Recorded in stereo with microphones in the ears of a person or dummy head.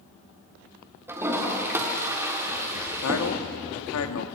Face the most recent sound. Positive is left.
turn(degrees=85)